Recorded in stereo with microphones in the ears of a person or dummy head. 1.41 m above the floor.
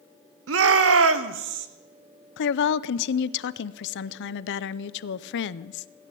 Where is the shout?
70° right (ahead or behind), 1.1 m; by 1.7 s 50° right (ahead or behind), 1.2 m.